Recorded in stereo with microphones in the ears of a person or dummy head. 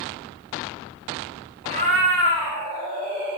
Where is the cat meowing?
45° right (ahead or behind), 1.7 m.